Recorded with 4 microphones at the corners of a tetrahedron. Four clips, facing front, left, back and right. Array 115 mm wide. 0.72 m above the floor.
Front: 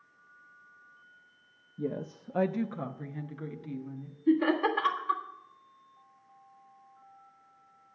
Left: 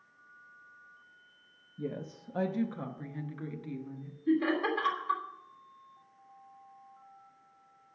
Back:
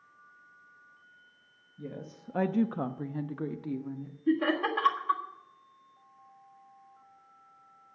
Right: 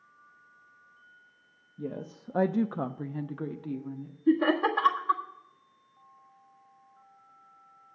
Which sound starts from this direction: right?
Laughter, at 4.3 s.